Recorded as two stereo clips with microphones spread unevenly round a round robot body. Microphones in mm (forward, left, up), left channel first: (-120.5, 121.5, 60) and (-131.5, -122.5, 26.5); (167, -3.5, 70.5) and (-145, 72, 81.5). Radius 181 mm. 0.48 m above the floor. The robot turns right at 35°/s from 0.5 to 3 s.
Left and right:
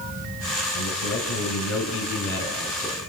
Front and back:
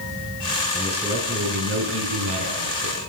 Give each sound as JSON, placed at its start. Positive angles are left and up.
{"t": 0.8, "sound": "a man speaking", "azimuth_deg": 75, "distance_m": 4.5}